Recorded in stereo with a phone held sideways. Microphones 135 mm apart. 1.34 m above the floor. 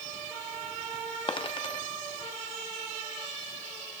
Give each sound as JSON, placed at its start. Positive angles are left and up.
{"t": 1.3, "sound": "a dropped coin", "side_deg": 40, "distance_m": 0.9}